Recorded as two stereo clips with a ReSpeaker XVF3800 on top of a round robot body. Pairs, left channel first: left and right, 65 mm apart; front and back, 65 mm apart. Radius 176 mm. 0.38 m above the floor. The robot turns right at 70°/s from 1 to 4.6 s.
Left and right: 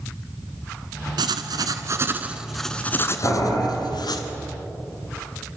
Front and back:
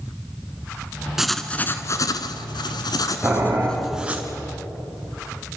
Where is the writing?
95° right, 1.1 m; by 4.2 s 115° left, 1.1 m.